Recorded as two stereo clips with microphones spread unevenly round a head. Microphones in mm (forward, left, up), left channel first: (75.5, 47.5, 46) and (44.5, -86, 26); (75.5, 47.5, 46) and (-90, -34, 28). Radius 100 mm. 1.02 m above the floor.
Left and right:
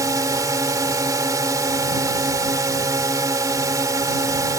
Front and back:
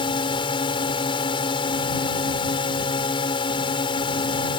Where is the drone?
40° right.